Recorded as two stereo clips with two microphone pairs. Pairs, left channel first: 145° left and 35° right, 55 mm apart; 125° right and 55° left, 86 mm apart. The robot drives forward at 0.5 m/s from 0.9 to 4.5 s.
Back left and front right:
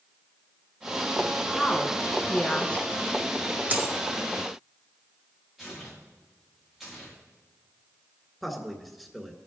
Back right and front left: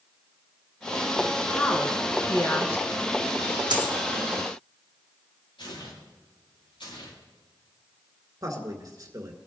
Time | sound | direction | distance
1.5 | a woman speaking | 150° right | 1.3 m
3.7 | a dropped coin | 25° left | 2.0 m
5.6 | tearing paper | 120° right | 6.5 m
8.4 | a man speaking | 50° left | 1.9 m